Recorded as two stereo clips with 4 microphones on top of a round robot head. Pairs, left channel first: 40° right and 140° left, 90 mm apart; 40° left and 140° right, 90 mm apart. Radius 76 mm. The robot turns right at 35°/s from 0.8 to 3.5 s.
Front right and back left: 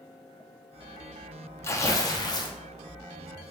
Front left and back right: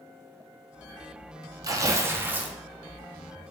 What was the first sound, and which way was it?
Tearing paper, 95° right.